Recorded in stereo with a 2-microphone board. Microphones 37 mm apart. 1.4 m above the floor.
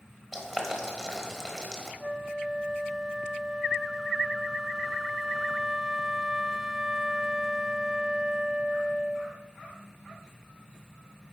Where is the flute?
5° right (ahead or behind), 0.5 m.